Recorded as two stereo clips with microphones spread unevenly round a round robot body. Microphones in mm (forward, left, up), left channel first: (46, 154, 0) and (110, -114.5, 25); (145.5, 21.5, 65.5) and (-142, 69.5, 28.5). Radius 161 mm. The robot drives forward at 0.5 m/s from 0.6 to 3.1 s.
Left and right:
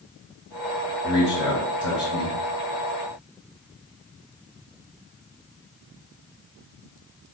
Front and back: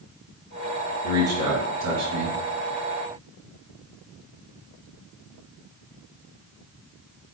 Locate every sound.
1.0 s a man speaking: 165° right, 2.5 m; by 2.4 s 170° right, 3 m